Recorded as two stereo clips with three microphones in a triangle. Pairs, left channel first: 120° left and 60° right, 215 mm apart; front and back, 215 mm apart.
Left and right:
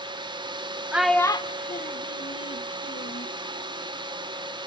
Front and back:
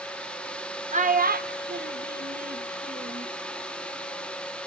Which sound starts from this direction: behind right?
A child speaking, at 0.9 s.